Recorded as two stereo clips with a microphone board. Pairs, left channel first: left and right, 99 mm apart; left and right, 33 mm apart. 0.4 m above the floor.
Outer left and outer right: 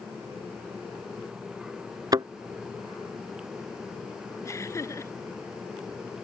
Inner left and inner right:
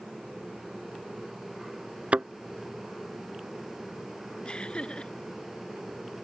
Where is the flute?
No flute in this recording.